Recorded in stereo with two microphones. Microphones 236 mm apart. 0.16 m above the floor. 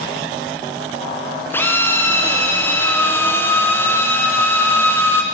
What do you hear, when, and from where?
1.5 s a drill: 10° left (ahead or behind), 1.6 m